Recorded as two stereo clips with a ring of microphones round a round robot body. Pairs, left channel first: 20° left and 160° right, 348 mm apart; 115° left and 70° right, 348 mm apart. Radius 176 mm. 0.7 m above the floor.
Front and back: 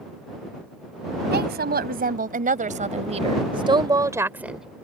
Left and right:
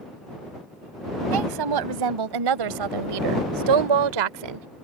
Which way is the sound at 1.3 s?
95° right.